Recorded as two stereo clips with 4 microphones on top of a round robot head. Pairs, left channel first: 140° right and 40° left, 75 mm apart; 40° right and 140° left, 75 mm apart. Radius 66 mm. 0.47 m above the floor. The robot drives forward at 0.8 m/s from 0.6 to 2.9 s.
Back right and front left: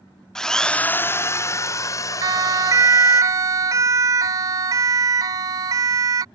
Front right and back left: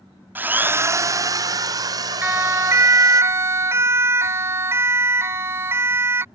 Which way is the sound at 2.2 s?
75° left.